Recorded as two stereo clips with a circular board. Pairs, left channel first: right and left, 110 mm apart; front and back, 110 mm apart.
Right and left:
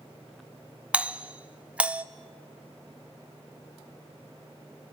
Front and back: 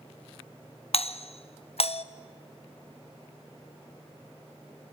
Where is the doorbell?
10° left, 0.7 m.